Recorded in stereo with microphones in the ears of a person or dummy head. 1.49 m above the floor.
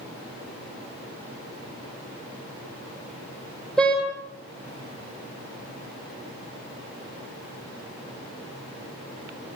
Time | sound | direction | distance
3.8 | a car horn | centre (ahead or behind) | 10 m